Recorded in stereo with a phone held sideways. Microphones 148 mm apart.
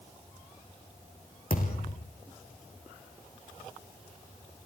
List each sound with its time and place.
1.5 s a thud: 70° left (ahead or behind), 5.5 m